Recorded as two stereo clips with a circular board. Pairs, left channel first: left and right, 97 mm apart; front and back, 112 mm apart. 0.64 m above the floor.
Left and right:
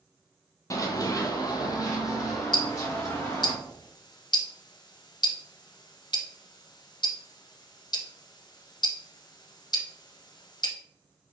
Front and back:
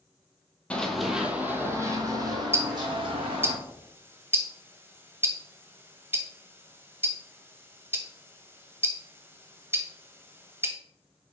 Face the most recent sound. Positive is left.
turn(degrees=115)